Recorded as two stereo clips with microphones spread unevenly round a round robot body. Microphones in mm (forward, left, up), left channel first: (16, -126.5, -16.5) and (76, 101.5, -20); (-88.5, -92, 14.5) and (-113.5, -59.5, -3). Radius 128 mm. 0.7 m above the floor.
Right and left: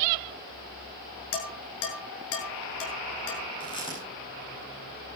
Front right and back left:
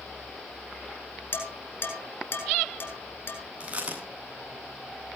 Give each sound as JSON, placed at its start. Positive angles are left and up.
{"t": 1.3, "sound": "dishes clattering", "azimuth_deg": -80, "distance_m": 6.5}
{"t": 3.6, "sound": "chewing", "azimuth_deg": -175, "distance_m": 8.5}